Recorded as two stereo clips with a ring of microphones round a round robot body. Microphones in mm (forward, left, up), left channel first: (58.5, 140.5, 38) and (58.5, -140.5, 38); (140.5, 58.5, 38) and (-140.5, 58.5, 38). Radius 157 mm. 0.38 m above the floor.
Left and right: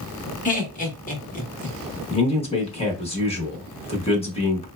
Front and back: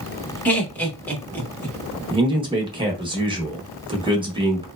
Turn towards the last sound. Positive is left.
turn(degrees=130)